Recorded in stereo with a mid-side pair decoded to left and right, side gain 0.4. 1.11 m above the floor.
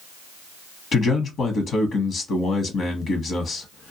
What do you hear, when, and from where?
0.9 s a man speaking: 65° left, 0.8 m